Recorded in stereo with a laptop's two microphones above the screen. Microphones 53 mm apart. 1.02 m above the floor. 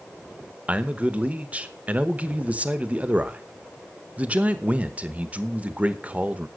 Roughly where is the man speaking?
Right.